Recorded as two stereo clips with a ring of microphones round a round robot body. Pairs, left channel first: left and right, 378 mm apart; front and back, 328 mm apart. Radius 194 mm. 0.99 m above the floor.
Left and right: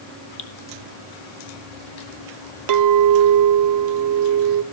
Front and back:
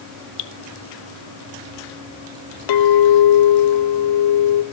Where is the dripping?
20° left, 1.2 m.